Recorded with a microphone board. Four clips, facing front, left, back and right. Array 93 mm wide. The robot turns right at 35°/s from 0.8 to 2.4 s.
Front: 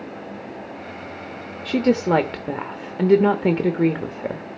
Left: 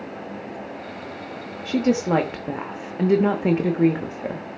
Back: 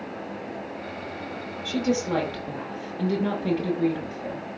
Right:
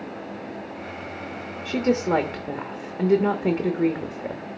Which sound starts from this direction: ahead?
A woman speaking, at 1.6 s.